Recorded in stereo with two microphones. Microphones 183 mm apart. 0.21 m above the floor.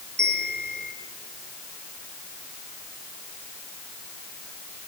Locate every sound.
0.2 s a bell: 75° right (ahead or behind), 3 m